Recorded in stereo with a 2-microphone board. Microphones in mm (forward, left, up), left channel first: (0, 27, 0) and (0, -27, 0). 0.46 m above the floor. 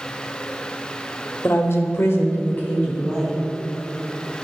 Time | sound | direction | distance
1.4 | a woman speaking | 45° left (ahead or behind) | 1.4 m